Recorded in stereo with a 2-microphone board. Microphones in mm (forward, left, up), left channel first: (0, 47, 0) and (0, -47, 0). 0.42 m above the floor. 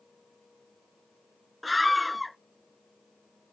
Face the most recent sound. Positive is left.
turn(degrees=0)  # may be behind; listen again after turning